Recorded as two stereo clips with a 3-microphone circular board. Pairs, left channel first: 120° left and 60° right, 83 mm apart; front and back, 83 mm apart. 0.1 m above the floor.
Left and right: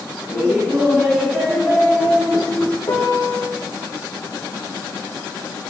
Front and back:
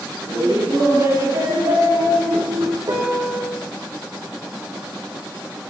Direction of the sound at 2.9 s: 145° left.